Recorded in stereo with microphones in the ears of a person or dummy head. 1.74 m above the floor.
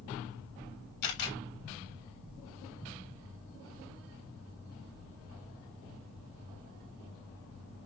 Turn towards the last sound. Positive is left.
turn(degrees=60)  # may be behind; listen again after turning